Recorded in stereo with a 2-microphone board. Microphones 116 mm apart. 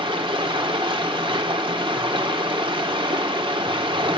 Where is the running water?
45° right (ahead or behind), 1.3 m.